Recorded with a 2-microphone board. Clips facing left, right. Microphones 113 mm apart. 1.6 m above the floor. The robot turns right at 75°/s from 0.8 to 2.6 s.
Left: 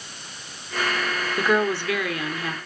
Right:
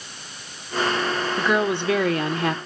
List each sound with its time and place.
1.4 s a woman speaking: 170° left, 1.0 m; by 2.6 s 100° right, 1.0 m